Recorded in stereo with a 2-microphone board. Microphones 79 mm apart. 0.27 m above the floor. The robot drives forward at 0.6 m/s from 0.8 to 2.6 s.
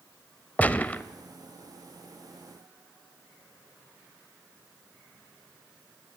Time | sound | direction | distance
0.6 | a gunshot | 20° left (ahead or behind) | 0.6 m